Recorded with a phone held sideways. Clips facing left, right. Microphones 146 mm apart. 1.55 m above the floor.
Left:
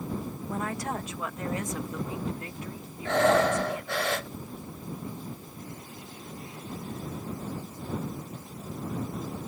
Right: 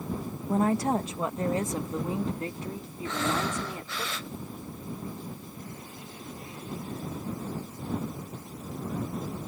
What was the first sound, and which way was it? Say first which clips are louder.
A woman speaking: right 9 dB; 30° right (ahead or behind).